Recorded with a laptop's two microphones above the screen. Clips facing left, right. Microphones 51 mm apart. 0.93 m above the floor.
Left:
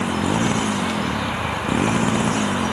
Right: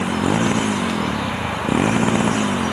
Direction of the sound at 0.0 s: 20° right (ahead or behind).